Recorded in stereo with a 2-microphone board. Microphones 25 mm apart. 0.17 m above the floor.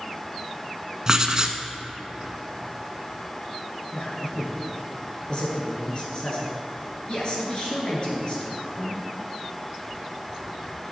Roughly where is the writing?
Right.